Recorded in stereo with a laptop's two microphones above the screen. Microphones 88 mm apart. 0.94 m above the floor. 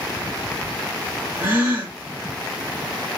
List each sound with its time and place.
1.4 s a gasp: 20° right (ahead or behind), 1.7 m